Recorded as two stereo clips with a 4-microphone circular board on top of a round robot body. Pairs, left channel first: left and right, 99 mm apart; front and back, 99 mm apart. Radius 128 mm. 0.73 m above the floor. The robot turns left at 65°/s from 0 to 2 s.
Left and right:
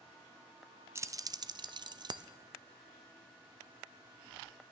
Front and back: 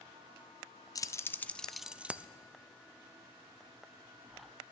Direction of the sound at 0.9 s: 40° right.